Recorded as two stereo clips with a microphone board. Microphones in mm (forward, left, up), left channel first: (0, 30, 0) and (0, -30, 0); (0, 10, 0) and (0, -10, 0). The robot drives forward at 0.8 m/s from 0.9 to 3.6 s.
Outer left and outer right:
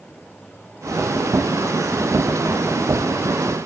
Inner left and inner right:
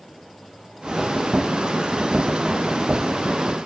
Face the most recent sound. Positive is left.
No sound to turn to.